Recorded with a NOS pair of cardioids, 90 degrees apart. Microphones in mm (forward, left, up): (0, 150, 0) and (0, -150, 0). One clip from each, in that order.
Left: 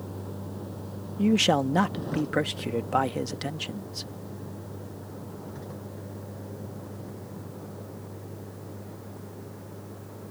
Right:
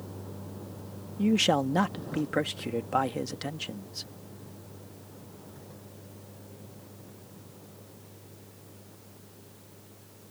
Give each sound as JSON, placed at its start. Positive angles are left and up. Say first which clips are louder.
{"t": 0.0, "sound": "a vehicle", "louder": "left 4 dB", "azimuth_deg": 30}
{"t": 1.2, "sound": "a man speaking", "louder": "left 2 dB", "azimuth_deg": 10}